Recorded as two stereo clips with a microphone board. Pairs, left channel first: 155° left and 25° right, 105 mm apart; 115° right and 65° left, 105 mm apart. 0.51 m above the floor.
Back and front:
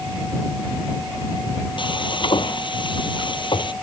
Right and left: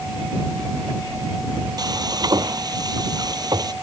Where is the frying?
120° left.